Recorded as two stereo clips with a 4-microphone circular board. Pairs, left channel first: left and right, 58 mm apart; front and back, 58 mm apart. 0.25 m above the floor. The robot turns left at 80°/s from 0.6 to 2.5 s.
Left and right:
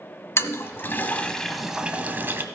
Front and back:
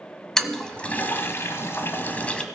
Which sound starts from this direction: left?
A toilet flushing, at 0.4 s.